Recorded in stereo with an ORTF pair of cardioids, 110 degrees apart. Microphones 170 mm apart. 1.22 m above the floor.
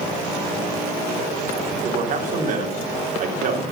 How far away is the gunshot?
No gunshot in this recording.